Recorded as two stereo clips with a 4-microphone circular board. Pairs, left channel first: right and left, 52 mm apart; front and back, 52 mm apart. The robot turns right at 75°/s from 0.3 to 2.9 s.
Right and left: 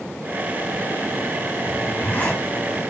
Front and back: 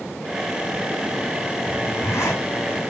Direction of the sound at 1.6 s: 70° right.